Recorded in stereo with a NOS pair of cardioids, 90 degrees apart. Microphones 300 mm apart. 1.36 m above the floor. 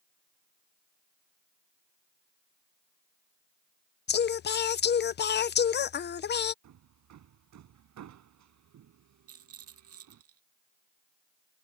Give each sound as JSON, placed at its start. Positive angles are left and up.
{"t": 4.1, "sound": "singing", "azimuth_deg": 35}
{"t": 6.6, "sound": "hammering", "azimuth_deg": -65}
{"t": 9.3, "sound": "a rattle", "azimuth_deg": -50}